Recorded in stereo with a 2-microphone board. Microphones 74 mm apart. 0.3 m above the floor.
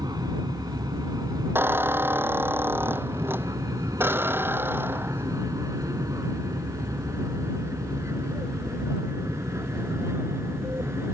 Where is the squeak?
30° right (ahead or behind).